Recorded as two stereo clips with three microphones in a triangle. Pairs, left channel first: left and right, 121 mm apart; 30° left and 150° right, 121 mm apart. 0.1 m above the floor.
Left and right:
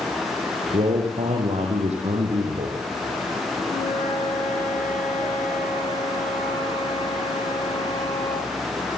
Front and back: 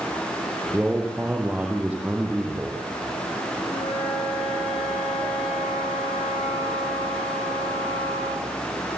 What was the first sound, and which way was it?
A man speaking, 70° right.